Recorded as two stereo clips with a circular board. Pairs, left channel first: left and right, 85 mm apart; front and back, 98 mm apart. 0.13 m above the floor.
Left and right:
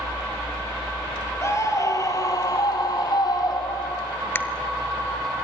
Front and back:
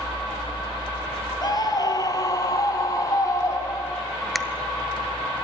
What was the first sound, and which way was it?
A scream, 40° left.